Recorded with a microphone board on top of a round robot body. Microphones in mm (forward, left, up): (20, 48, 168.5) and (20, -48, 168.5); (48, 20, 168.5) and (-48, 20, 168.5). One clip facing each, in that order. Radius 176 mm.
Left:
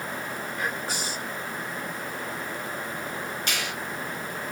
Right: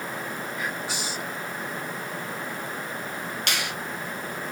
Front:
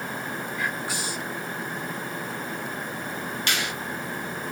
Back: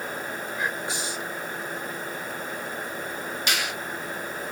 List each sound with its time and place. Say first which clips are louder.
0.6 s whispering: left 2 dB, back 1 dB; 120° left, 1.7 m
3.5 s a finger snap: right 3 dB, back 1 dB; 105° right, 2.5 m